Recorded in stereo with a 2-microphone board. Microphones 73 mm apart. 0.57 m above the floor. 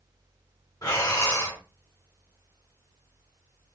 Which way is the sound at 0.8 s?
55° left (ahead or behind).